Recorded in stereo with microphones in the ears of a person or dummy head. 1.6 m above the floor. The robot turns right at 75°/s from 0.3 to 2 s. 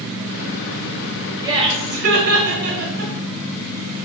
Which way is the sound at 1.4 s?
20° right (ahead or behind).